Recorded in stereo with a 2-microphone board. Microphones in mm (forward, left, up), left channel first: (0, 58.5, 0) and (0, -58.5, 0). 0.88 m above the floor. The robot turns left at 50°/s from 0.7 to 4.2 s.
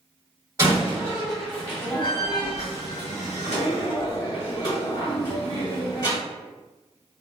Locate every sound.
0.6 s a door slam: 30° right (ahead or behind), 1.2 m; by 6.2 s 35° left (ahead or behind), 1.2 m